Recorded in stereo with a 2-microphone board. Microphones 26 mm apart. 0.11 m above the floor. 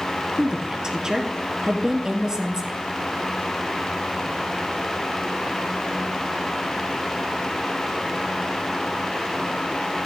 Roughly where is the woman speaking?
Right.